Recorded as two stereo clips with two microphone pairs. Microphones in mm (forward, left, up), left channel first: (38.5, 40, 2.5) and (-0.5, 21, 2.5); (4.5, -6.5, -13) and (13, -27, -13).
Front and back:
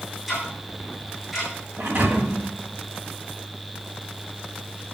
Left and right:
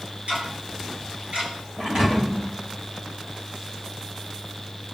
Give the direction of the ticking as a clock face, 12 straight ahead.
2 o'clock.